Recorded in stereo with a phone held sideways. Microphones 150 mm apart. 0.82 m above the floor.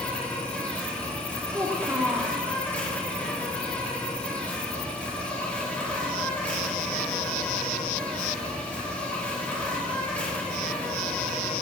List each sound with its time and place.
0.0 s an insect: 10° left (ahead or behind), 1.8 m
1.5 s a child speaking: 15° right (ahead or behind), 1.5 m